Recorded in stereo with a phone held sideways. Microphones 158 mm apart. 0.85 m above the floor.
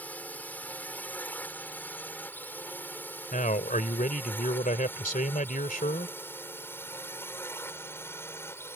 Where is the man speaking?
60° left (ahead or behind).